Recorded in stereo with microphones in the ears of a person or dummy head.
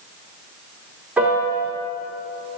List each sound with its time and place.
1.2 s a piano: 5° right (ahead or behind), 2.5 m